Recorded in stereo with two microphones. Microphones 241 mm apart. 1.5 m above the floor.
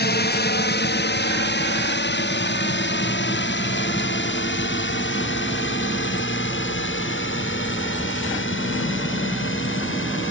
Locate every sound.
0.0 s a drone: 45° left (ahead or behind); by 10.3 s 55° left (ahead or behind)